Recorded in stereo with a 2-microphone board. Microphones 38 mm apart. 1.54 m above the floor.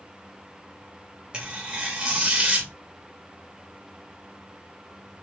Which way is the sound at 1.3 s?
25° right (ahead or behind).